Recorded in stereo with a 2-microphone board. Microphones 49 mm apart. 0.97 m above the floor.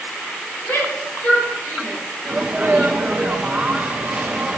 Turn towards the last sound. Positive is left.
turn(degrees=-30)  # may be behind; listen again after turning